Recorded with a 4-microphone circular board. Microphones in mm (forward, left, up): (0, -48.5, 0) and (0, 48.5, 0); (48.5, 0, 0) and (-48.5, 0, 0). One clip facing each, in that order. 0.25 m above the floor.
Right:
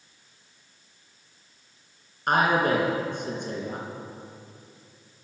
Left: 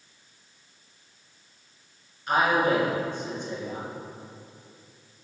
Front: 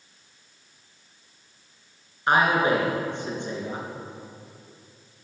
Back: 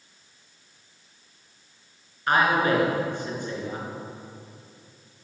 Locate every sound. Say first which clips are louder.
2.3 s a man speaking: right 1 dB, front 1 dB; 65° right, 3 m